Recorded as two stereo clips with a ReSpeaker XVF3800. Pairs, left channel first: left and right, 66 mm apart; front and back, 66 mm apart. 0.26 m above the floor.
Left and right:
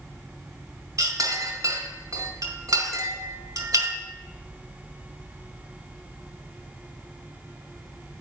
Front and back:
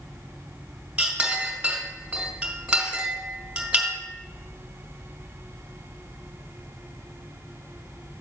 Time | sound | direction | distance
1.0 | a clink | 105° right | 2.0 m